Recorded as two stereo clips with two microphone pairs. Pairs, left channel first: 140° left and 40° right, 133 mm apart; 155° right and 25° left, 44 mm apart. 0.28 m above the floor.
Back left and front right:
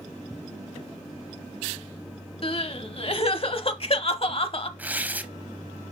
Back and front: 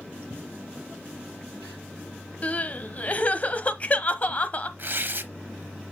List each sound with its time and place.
2.4 s crying: 160° left, 0.8 m
4.8 s tearing paper: 35° left, 0.7 m